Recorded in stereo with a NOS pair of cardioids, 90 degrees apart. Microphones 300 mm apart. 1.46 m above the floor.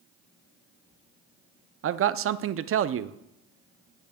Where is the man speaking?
45° right, 0.5 m.